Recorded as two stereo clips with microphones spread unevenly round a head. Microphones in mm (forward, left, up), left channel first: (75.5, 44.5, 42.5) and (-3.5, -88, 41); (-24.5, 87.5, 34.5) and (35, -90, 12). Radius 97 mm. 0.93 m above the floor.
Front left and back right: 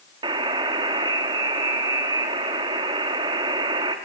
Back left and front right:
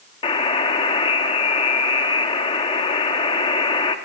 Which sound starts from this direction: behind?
A buzzer, at 0.2 s.